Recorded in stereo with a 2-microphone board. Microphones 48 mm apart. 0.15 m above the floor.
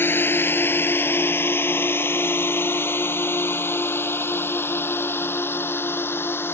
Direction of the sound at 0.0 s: 50° left (ahead or behind).